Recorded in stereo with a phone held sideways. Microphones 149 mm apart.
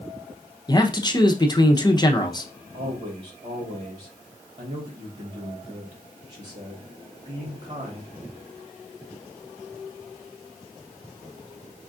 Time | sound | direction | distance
0.7 | a man speaking | 25° left (ahead or behind) | 0.7 m
2.7 | a man speaking | 50° right (ahead or behind) | 2.0 m